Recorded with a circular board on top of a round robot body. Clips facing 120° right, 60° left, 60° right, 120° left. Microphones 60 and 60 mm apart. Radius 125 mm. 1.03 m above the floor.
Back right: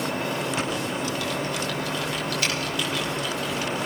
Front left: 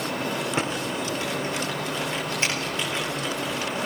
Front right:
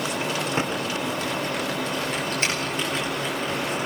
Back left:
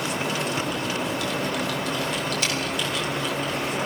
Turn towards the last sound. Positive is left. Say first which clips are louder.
# even, front right 1 dB
turn(degrees=-5)